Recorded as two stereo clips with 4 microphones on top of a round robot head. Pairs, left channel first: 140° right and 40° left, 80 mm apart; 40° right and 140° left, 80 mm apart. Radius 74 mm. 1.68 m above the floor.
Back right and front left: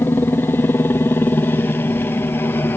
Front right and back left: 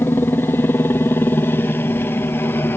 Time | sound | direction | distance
0.0 | a helicopter | 90° right | ?